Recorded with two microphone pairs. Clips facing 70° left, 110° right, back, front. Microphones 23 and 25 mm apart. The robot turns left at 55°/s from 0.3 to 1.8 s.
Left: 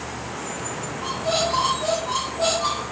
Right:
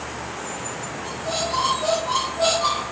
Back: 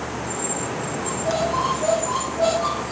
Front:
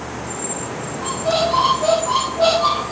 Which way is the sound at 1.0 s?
10° left.